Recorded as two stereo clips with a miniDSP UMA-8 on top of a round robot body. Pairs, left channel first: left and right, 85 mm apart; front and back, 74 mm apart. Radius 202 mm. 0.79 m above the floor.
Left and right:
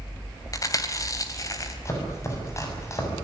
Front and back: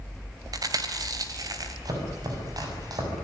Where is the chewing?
140° left, 3 m.